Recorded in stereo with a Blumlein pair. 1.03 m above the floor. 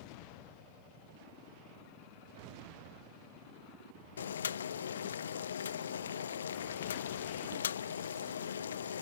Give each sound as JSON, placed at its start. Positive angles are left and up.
{"t": 4.2, "sound": "boiling", "azimuth_deg": 65}